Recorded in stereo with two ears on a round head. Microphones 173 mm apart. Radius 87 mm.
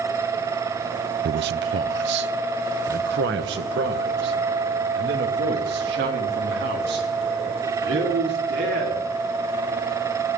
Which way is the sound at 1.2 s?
55° right (ahead or behind).